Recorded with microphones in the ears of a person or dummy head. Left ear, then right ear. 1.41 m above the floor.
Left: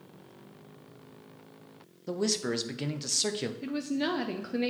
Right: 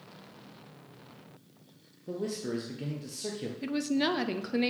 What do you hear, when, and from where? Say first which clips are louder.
2.1 s a man speaking: left 5 dB; 45° left (ahead or behind), 0.6 m
3.6 s a woman speaking: right 5 dB; 15° right (ahead or behind), 0.6 m